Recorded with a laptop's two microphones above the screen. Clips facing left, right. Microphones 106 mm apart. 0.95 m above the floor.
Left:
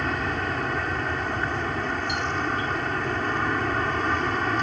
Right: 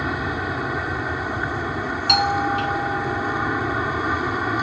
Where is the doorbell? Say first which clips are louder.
Right 7 dB; 80° right.